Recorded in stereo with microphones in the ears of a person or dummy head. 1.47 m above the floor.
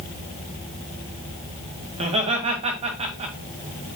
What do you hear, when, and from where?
1.9 s laughter: 40° right (ahead or behind), 2 m